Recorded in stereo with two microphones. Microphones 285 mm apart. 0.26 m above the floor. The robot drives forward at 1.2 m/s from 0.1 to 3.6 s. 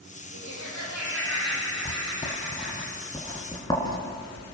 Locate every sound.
0.3 s laughter: 75° right (ahead or behind), 10 m; by 2.9 s 60° right (ahead or behind), 11 m
1.9 s writing: 25° left (ahead or behind), 1.9 m; by 4.4 s 15° left (ahead or behind), 3.5 m